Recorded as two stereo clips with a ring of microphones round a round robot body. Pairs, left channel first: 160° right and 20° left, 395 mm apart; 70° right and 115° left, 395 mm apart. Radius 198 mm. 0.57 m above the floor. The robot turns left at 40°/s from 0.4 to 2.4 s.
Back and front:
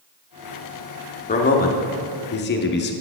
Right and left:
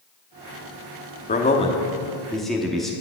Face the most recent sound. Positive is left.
turn(degrees=-155)